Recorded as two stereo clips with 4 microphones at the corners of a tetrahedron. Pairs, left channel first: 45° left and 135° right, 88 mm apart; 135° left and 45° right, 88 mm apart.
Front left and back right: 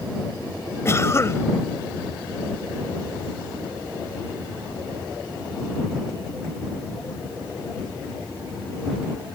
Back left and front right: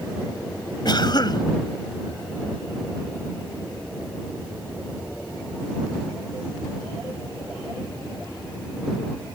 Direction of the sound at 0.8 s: 100° left.